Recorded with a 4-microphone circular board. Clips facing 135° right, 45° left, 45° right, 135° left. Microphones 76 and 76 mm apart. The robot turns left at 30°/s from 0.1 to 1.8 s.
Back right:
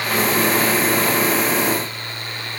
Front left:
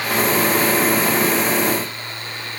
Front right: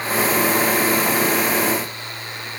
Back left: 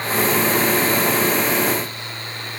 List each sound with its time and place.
Only background noise.